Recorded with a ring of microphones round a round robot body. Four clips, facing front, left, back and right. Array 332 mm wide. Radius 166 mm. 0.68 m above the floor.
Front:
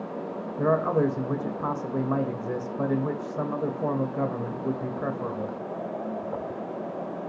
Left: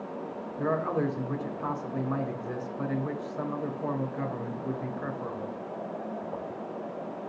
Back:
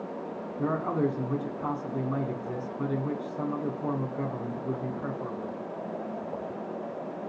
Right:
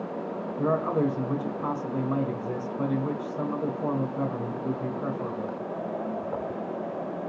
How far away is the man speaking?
About 3 m.